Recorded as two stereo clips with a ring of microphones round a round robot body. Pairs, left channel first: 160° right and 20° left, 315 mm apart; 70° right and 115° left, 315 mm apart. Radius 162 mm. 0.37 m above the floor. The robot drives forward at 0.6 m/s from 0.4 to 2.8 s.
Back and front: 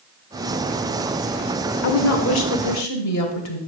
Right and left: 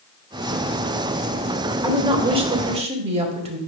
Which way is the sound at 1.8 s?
175° right.